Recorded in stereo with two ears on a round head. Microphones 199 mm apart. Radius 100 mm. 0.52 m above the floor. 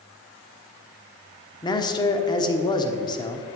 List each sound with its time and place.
1.6 s a man speaking: 20° left (ahead or behind), 1.0 m